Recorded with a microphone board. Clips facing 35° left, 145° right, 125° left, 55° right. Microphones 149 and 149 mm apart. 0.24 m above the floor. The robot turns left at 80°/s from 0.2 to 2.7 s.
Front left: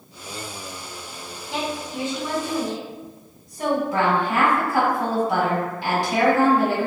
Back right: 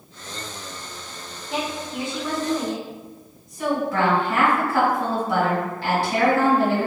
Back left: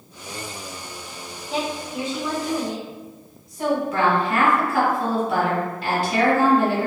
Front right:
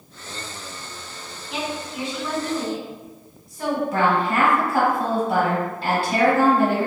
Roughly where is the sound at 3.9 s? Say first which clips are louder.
Even, even; ahead right.